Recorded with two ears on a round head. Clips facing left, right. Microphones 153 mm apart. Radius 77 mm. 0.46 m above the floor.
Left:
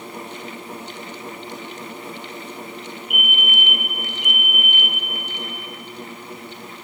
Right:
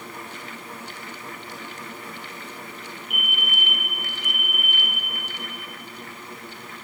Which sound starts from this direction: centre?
A fire alarm, at 3.1 s.